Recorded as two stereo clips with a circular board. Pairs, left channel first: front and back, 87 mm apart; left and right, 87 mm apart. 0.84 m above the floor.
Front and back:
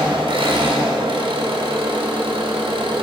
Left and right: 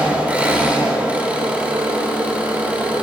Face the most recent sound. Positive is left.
turn(degrees=-165)